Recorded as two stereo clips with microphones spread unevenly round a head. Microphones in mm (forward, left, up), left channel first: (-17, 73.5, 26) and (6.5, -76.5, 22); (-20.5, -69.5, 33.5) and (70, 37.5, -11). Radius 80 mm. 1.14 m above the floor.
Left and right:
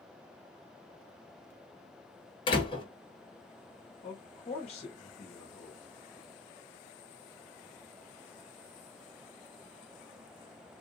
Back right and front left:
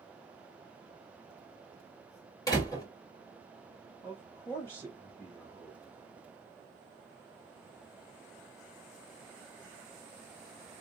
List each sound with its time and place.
2.5 s a door slam: 160° left, 1.5 m
4.0 s a man speaking: 150° left, 1.1 m